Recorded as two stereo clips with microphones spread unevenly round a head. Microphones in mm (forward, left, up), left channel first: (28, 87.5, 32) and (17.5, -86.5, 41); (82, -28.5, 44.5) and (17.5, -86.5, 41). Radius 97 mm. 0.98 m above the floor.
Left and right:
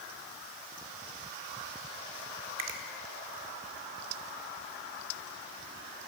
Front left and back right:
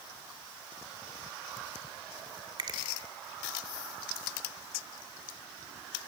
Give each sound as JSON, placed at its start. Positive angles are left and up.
{"t": 2.6, "sound": "a finger snap", "azimuth_deg": -110, "distance_m": 1.8}